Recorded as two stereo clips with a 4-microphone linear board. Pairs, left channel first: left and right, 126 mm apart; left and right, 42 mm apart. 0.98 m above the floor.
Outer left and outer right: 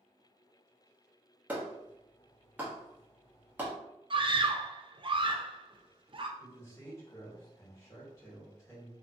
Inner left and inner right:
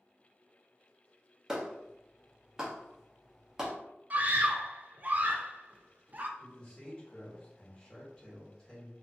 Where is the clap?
15° right (ahead or behind), 0.9 m.